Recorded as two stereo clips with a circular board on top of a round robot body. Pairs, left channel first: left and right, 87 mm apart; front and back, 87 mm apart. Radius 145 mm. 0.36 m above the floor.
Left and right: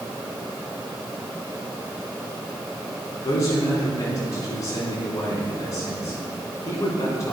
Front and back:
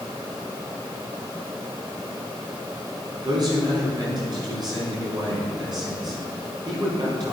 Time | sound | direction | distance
3.2 | a man speaking | 140° left | 4.5 m